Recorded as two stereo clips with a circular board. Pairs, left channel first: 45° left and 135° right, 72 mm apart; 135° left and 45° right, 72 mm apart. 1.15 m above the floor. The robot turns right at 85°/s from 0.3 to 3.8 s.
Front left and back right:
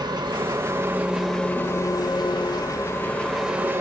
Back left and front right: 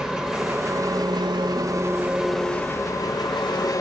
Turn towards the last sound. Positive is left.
turn(degrees=170)